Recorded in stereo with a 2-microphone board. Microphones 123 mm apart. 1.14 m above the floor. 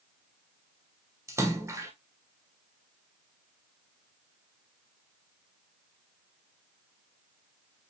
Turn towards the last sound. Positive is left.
turn(degrees=-25)  # may be behind; listen again after turning